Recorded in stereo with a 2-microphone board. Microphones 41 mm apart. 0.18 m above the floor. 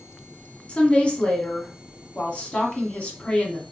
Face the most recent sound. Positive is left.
turn(degrees=30)  # may be behind; listen again after turning